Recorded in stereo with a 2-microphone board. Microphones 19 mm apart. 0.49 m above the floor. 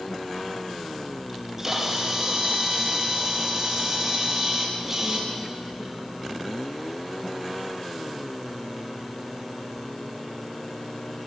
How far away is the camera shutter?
About 4.5 m.